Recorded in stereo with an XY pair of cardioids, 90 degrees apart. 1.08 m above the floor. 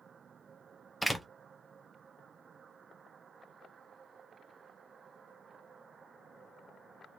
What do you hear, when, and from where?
1.0 s a door slam: 5° left, 0.6 m